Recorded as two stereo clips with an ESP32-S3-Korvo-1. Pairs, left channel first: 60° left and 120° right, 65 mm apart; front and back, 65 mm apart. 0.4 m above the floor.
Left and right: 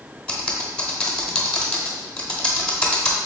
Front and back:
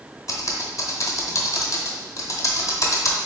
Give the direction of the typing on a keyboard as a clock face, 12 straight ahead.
12 o'clock.